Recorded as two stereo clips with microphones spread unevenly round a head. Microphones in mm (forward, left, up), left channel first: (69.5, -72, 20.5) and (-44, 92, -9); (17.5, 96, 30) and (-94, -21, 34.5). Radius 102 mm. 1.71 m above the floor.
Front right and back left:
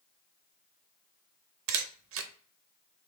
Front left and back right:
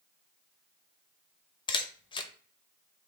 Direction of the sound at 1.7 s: 105° left.